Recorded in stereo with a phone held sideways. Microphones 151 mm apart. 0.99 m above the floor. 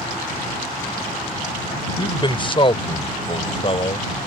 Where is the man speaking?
30° left (ahead or behind); by 4.1 s 40° left (ahead or behind).